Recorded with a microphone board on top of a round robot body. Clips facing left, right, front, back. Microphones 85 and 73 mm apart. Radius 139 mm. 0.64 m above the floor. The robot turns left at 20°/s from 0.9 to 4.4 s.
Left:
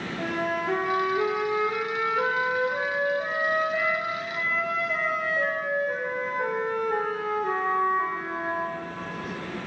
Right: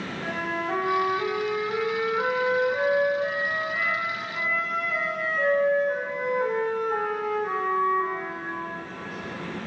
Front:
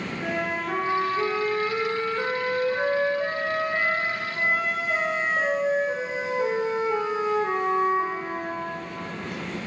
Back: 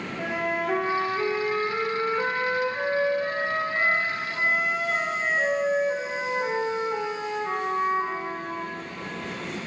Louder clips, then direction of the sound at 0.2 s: Left 2 dB, back 2 dB; 95° left.